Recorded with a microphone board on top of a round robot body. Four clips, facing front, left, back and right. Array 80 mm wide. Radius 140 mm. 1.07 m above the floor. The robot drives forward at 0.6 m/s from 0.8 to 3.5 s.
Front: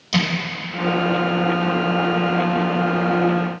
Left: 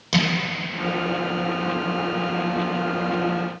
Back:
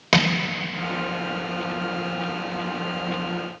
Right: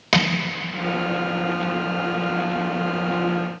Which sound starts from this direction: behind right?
Crushing, at 0.1 s.